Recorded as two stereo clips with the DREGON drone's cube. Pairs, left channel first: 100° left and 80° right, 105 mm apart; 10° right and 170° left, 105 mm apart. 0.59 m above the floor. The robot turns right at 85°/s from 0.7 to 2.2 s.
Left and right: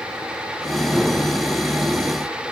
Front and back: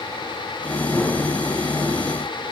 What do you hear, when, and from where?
Only background noise.